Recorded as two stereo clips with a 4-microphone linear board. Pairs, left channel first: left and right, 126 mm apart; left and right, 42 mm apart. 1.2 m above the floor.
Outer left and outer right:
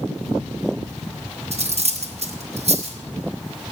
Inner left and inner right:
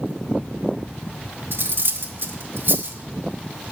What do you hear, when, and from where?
1.5 s cutlery clinking: 55° right (ahead or behind), 1.0 m